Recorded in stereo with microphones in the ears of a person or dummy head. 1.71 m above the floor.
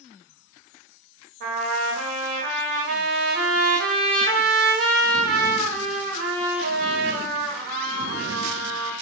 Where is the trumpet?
50° right (ahead or behind), 1.1 m.